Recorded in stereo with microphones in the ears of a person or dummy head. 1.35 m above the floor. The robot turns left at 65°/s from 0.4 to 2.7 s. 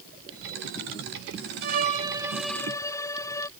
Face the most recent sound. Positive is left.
turn(degrees=160)